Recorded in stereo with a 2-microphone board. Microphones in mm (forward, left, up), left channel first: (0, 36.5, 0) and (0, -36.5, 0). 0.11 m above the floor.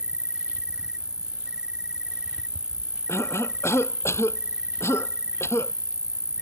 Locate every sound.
0.0 s an insect: 10° right (ahead or behind)
3.1 s a cough: 35° left (ahead or behind)